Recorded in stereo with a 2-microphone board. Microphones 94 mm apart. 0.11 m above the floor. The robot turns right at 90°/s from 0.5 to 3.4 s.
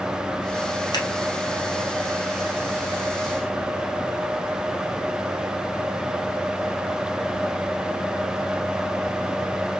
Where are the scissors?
45° left (ahead or behind), 2 m; by 1.1 s 40° left (ahead or behind), 2 m.